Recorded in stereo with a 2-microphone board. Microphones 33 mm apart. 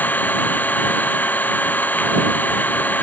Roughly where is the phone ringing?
I don't hear a phone ringing.